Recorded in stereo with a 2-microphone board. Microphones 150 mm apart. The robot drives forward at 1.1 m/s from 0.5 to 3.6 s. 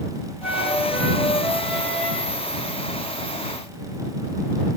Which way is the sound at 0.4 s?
5° right (ahead or behind).